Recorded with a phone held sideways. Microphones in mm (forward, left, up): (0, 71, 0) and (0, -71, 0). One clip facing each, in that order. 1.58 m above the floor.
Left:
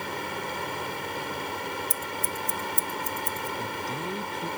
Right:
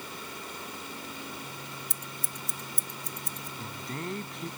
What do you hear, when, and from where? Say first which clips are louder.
0.0 s a fan: left 9 dB; 70° left (ahead or behind)
1.9 s scissors: left 10 dB; 70° right (ahead or behind)
3.6 s a man speaking: left 6 dB; 5° left (ahead or behind)